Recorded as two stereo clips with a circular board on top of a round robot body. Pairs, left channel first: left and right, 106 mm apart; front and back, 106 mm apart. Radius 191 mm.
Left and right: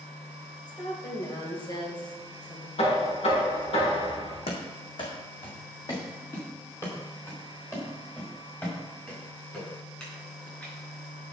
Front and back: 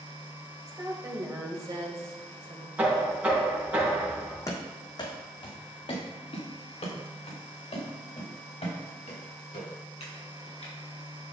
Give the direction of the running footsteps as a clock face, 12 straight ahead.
10 o'clock.